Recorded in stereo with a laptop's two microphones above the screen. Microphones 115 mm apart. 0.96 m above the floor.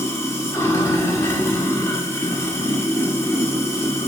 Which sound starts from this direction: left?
Running water, at 0.0 s.